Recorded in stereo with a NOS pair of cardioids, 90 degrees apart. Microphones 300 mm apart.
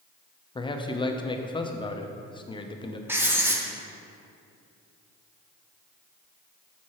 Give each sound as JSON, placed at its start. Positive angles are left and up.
{"t": 0.6, "sound": "a man speaking", "azimuth_deg": 15, "distance_m": 0.6}
{"t": 3.1, "sound": "writing", "azimuth_deg": -5, "distance_m": 0.9}